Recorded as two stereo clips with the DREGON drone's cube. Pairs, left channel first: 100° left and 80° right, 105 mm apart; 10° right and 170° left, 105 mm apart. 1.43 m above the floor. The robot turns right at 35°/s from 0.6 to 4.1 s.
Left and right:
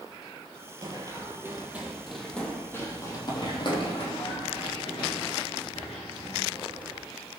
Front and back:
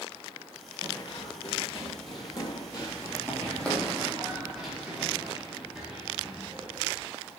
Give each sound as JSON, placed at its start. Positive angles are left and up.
{"t": 0.8, "sound": "running footsteps", "azimuth_deg": -45, "distance_m": 2.5}